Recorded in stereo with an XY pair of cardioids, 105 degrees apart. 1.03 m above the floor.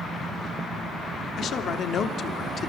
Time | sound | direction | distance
1.4 | a man speaking | 60° left | 3 m